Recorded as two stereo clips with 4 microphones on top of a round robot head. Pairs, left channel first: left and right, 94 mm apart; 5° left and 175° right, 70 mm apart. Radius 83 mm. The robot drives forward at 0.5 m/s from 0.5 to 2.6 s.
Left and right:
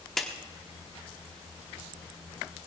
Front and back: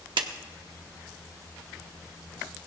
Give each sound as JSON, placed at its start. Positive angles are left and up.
{"t": 0.2, "sound": "a clap", "azimuth_deg": 180, "distance_m": 1.0}